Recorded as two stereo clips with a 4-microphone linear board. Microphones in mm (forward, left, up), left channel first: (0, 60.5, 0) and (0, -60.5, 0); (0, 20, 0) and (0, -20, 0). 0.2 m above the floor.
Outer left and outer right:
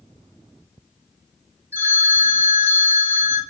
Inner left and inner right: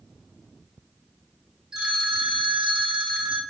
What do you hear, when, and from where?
1.7 s a phone ringing: 20° right (ahead or behind), 0.8 m